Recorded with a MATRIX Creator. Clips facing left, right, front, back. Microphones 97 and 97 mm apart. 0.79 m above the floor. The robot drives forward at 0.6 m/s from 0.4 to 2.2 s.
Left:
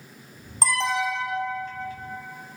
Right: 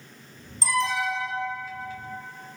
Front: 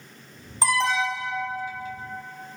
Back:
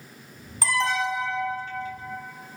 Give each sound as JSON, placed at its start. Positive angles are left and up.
{"t": 0.6, "sound": "an alarm", "azimuth_deg": 70, "distance_m": 1.2}